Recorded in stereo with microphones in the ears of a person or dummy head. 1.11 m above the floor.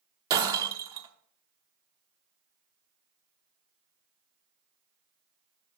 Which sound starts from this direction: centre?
Breaking glass, at 0.3 s.